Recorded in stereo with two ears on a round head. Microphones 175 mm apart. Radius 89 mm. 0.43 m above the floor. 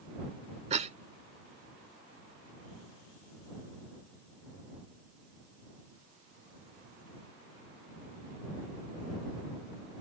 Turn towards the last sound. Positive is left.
turn(degrees=-35)  # may be behind; listen again after turning